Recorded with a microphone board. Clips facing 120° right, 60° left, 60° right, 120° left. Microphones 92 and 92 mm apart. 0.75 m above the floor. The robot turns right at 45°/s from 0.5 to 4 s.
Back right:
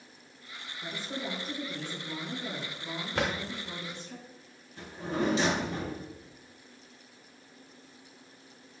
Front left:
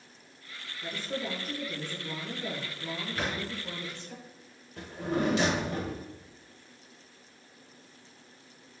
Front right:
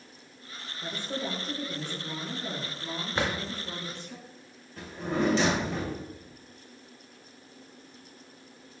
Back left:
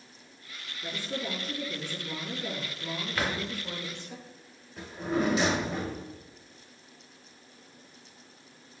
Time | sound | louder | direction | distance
0.8 | a woman speaking | front left 2 dB, front right 1 dB | 40° right | 1.9 m
3.1 | a drawer | back right 4 dB, front right 2 dB | 125° right | 0.7 m
4.8 | a drawer | front left 2 dB, even | 40° left | 1.4 m